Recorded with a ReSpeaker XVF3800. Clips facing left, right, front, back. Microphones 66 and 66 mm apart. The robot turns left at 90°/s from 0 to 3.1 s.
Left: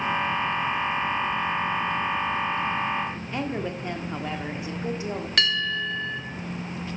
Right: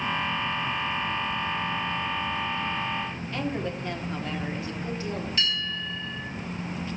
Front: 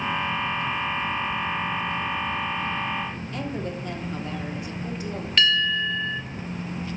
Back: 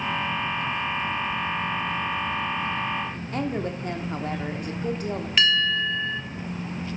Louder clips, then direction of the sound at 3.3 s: Even, back 5 dB; 155° left.